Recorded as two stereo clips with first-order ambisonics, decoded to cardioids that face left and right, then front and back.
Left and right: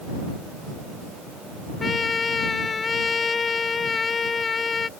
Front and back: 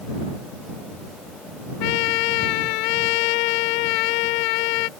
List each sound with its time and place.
1.8 s a trumpet: 15° left